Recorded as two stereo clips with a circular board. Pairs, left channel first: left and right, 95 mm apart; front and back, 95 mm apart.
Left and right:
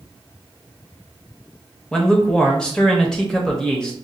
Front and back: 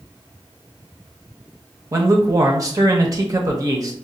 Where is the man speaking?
165° left, 0.7 m.